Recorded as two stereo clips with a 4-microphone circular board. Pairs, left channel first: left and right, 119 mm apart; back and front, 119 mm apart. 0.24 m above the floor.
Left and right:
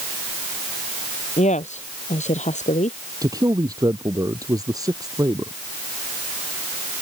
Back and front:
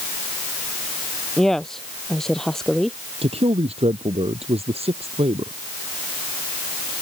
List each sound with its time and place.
1.4 s a woman speaking: 95° left
3.2 s a man speaking: 30° right